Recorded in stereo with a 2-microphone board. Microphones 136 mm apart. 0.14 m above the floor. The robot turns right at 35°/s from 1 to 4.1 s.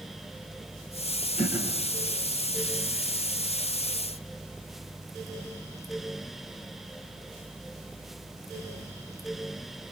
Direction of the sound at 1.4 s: 70° left (ahead or behind).